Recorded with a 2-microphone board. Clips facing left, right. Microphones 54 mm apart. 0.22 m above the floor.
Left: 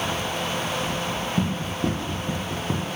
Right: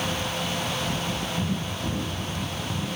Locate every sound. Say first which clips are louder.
1.4 s running footsteps: left 3 dB; 85° left, 7.5 m; by 2.9 s 80° left, 6.5 m